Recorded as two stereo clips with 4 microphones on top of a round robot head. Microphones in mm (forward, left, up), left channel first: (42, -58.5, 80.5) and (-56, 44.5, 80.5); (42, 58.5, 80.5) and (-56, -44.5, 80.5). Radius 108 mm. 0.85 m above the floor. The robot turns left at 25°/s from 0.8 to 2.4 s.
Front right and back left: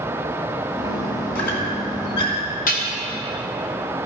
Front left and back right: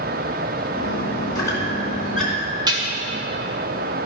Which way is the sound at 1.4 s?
20° right.